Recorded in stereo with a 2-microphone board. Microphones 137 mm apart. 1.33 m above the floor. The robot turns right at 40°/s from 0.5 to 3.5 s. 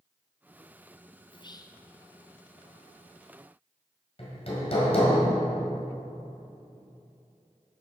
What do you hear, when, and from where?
1.3 s whispering: 40° left (ahead or behind), 0.6 m; by 1.8 s 20° left (ahead or behind), 0.6 m
4.2 s hammering: 45° left (ahead or behind), 2 m